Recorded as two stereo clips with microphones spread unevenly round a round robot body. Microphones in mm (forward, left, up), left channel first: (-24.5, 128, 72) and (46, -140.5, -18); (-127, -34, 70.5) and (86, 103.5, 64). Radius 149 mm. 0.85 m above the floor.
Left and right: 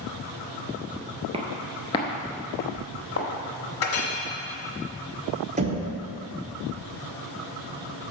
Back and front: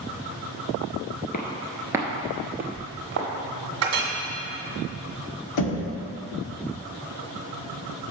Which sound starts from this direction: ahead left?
A clink, at 3.8 s.